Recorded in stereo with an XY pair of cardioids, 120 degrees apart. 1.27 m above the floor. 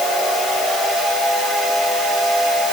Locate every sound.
Only background noise.